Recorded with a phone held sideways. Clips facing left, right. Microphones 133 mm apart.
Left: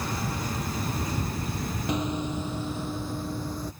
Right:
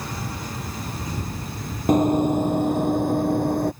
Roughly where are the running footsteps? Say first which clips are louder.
Right 13 dB; right.